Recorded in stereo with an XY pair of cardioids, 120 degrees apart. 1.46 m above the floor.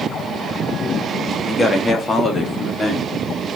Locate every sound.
1.5 s a man speaking: 20° left, 2.0 m